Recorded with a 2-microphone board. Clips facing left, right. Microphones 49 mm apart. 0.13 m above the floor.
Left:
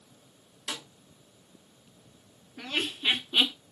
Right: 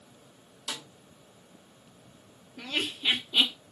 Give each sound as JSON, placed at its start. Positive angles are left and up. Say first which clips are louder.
{"t": 0.7, "sound": "a snare drum", "louder": "left 1 dB", "side_deg": 40, "distance_m": 1.4}
{"t": 2.6, "sound": "laughter", "louder": "even", "side_deg": 35, "distance_m": 1.7}